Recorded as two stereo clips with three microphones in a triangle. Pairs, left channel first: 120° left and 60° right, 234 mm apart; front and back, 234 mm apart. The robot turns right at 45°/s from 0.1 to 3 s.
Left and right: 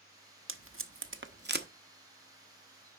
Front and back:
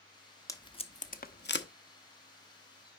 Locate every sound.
0.5 s tape being pulled: 75° right, 0.7 m; by 1.7 s 20° right, 0.7 m